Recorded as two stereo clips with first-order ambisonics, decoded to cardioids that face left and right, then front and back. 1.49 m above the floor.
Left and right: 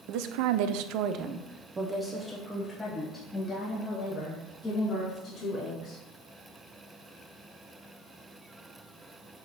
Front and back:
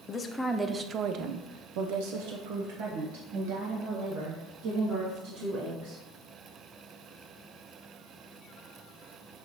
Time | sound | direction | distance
0.1 | a woman speaking | 70° right | 0.7 m